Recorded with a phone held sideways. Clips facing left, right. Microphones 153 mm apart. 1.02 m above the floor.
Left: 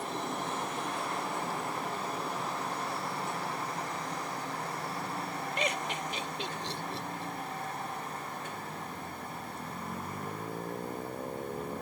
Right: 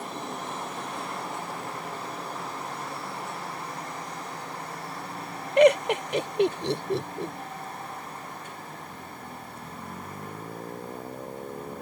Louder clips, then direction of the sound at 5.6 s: Right 18 dB; 70° right (ahead or behind).